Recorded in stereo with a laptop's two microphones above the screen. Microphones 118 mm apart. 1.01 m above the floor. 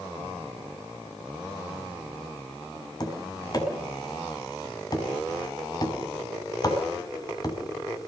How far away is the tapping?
About 5.5 m.